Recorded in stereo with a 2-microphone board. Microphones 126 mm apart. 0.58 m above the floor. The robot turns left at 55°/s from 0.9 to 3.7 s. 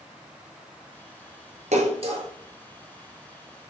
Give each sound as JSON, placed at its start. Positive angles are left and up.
{"t": 1.7, "sound": "a splash", "side_deg": -70, "distance_m": 1.7}